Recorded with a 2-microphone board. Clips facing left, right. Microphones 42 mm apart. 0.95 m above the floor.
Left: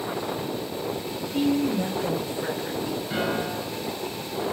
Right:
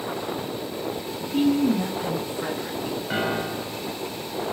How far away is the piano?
About 1.7 m.